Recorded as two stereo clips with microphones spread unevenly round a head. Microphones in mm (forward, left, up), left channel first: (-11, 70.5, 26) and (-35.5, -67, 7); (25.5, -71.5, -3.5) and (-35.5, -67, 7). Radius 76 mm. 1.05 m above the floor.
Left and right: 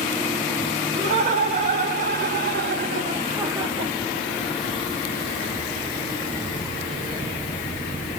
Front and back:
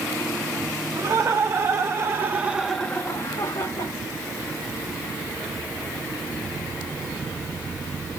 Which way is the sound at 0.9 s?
145° right.